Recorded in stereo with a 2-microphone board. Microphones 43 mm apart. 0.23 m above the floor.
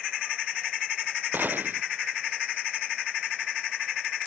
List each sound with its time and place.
1.3 s a gunshot: 50° right (ahead or behind)